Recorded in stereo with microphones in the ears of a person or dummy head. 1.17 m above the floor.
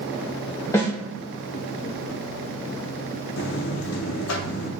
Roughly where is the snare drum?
Centre.